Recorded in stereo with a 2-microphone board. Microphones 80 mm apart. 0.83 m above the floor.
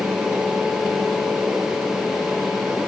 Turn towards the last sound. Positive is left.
No sound to turn to.